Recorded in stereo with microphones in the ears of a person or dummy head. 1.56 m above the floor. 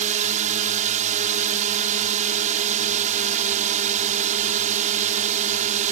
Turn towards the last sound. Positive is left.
turn(degrees=-40)  # may be behind; listen again after turning